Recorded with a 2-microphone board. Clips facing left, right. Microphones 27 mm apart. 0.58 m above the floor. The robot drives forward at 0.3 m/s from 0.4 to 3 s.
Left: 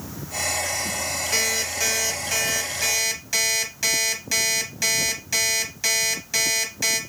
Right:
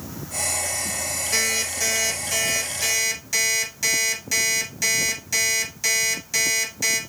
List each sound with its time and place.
1.3 s an alarm clock: 25° left (ahead or behind), 2 m; by 7.0 s 35° left (ahead or behind), 1.6 m